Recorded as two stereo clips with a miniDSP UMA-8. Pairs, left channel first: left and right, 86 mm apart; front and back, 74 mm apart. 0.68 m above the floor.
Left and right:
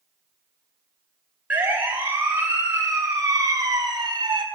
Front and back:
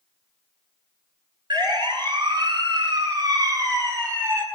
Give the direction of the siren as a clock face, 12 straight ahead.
5 o'clock.